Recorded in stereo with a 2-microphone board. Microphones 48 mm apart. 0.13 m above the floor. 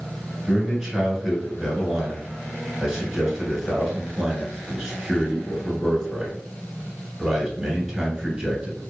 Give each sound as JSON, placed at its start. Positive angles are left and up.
{"t": 0.5, "sound": "a man speaking", "side_deg": 0, "distance_m": 1.6}